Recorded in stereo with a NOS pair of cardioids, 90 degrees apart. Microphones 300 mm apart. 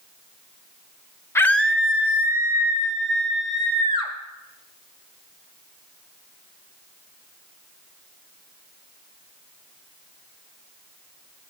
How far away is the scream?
About 0.8 m.